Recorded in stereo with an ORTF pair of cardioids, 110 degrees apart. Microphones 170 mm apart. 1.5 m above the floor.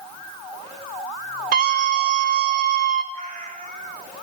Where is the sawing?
No sawing in this recording.